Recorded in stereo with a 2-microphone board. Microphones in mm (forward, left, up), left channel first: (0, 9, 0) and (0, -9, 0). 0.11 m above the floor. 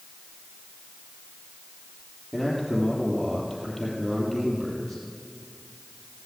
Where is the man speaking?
Centre (ahead or behind), 3 m.